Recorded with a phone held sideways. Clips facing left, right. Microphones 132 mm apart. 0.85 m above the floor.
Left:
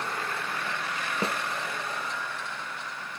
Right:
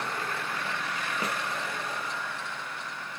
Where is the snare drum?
30° left (ahead or behind), 0.5 m.